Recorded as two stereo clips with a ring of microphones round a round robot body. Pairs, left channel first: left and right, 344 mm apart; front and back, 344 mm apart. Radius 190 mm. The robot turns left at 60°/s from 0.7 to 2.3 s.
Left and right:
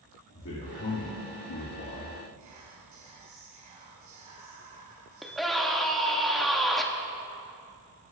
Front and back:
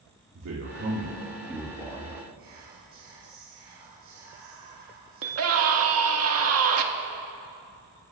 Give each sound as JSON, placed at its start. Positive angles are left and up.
{"t": 0.3, "sound": "a man speaking", "azimuth_deg": 140, "distance_m": 1.7}
{"t": 2.4, "sound": "whispering", "azimuth_deg": -120, "distance_m": 1.3}
{"t": 5.2, "sound": "a scream", "azimuth_deg": 180, "distance_m": 1.5}